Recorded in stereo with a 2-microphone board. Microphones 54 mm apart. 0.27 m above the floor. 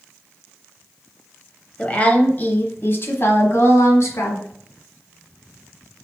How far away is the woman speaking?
About 1.0 m.